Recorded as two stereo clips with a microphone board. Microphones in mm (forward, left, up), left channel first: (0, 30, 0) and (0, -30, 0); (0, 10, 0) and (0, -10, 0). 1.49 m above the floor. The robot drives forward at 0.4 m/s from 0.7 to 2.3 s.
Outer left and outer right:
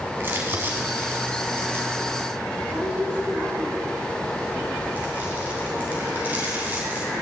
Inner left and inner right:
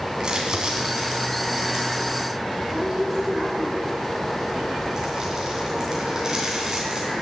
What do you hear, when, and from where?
0.2 s crumpling: 40° right (ahead or behind), 3 m; by 7.1 s 30° right (ahead or behind), 3 m